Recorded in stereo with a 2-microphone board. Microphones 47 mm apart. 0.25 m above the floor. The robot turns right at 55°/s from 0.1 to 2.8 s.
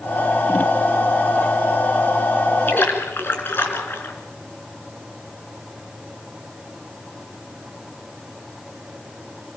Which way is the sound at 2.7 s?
45° left (ahead or behind).